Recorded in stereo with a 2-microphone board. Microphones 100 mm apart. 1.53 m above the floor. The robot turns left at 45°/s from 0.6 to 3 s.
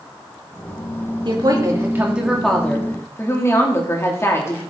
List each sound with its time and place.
1.2 s a woman speaking: 130° right, 2.5 m; by 4.6 s 155° left, 2.5 m